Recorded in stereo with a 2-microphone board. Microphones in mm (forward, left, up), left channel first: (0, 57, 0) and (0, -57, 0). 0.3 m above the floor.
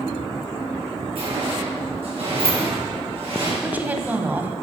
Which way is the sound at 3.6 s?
15° right (ahead or behind).